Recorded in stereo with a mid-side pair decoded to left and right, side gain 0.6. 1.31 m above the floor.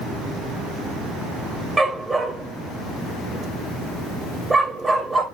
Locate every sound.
1.8 s a dog barking: 15° right, 2.5 m